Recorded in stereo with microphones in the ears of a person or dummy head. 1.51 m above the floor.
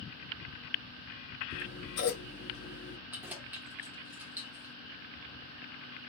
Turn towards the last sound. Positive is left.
turn(degrees=-10)  # may be behind; listen again after turning